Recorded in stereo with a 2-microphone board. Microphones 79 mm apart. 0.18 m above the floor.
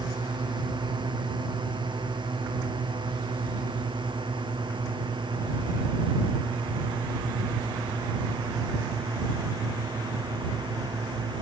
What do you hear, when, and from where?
0.0 s a drone: 75° right (ahead or behind)